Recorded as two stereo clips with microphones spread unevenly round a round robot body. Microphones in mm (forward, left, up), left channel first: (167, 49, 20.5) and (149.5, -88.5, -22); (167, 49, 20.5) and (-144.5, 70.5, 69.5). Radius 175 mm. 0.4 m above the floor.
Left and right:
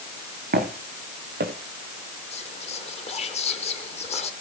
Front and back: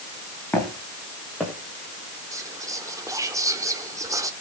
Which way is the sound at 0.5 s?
90° right.